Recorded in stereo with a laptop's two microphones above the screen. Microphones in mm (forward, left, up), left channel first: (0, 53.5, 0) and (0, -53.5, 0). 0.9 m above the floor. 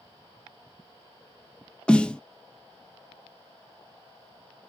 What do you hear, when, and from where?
1.9 s a snare drum: 10° left (ahead or behind), 0.5 m